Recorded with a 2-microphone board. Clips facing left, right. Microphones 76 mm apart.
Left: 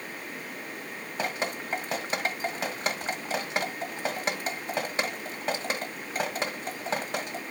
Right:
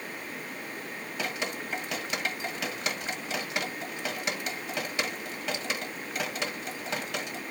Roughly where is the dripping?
Left.